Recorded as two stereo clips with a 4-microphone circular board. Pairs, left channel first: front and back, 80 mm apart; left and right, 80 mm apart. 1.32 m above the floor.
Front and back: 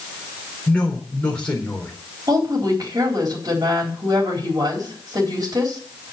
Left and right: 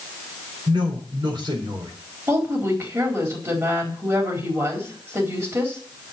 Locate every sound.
0.7 s a woman speaking: 75° right, 4.5 m
2.3 s a woman speaking: 140° right, 4 m